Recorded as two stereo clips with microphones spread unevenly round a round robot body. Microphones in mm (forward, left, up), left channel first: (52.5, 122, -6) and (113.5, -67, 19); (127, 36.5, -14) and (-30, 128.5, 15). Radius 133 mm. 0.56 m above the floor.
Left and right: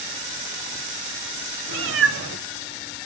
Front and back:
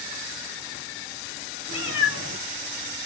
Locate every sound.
1.7 s a cat meowing: 70° right, 0.8 m